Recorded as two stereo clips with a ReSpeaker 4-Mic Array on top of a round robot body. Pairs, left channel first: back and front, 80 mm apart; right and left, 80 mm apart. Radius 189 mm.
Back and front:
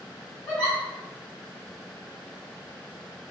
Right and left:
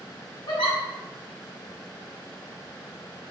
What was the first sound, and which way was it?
A giggle, 110° right.